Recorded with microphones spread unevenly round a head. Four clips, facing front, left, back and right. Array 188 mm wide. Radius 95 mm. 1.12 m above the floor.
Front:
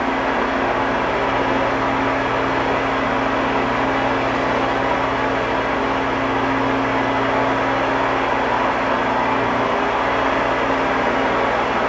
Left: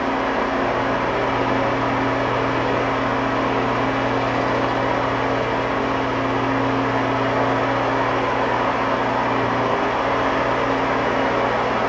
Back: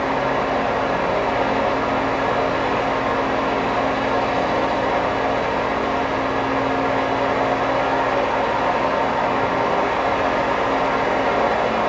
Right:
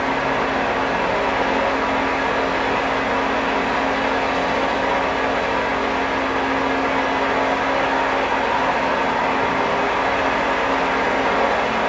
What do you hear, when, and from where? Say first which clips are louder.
0.0 s a fan: even, front 1 dB; 10° left, 0.8 m